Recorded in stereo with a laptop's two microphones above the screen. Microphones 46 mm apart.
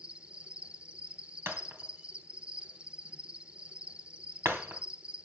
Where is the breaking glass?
65° right (ahead or behind), 2.5 m.